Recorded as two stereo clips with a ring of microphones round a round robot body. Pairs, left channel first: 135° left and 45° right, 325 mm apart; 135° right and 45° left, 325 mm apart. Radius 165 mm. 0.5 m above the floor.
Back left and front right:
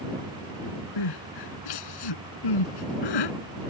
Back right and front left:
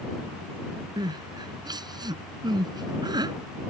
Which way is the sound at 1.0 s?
125° left.